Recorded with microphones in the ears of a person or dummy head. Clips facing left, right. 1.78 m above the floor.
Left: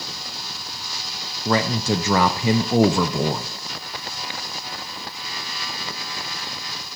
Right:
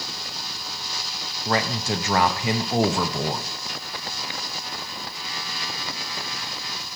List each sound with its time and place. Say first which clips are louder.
1.4 s a man speaking: left 4 dB; 85° left, 0.6 m